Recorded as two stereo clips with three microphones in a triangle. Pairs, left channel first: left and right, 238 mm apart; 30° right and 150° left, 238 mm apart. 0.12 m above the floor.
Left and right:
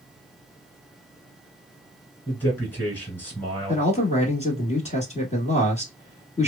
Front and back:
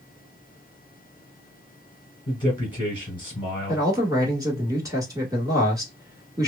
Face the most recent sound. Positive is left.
turn(degrees=90)